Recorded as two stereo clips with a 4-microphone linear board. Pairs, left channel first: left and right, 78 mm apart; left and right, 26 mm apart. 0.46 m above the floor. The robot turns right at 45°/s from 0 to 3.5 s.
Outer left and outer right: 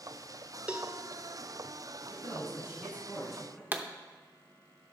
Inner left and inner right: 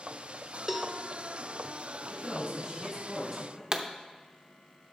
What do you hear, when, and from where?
0.7 s a cowbell: 15° right (ahead or behind), 0.8 m; by 0.9 s 5° right (ahead or behind), 0.8 m
2.1 s a man speaking: 55° right, 4 m; by 3.6 s 10° left, 4 m
3.7 s a pop: 25° right (ahead or behind), 0.7 m